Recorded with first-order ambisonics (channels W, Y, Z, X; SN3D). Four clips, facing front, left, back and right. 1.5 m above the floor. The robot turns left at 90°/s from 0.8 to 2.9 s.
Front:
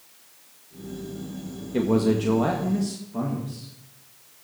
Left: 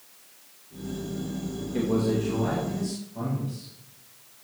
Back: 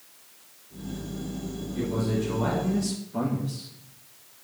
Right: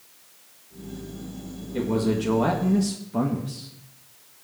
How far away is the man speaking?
About 1.9 m.